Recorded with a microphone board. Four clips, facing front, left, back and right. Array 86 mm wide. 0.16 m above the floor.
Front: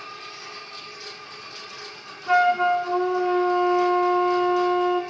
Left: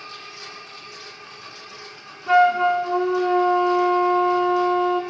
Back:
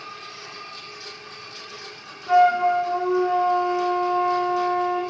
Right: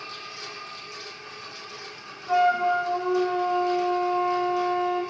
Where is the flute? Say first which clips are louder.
Left 5 dB, back 2 dB; 60° left, 2 m.